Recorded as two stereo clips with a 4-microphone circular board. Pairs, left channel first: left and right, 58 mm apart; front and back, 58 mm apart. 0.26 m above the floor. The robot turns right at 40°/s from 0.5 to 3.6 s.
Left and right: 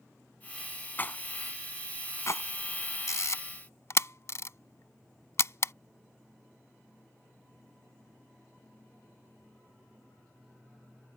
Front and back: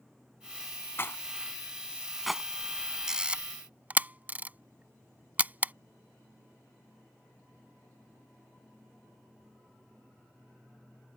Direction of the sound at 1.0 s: 40° left.